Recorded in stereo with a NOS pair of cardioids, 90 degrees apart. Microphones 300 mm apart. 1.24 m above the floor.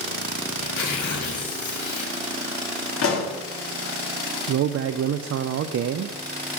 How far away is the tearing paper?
About 3 m.